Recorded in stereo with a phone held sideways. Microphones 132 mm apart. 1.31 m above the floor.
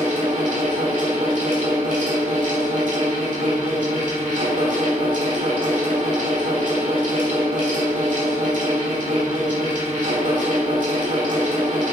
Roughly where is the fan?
Right.